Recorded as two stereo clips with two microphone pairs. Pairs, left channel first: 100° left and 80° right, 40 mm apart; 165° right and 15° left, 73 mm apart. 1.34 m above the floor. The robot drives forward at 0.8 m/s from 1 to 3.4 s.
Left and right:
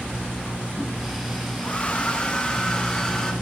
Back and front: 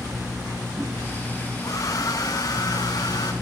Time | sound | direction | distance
1.6 | a hair dryer | 160° left | 1.6 m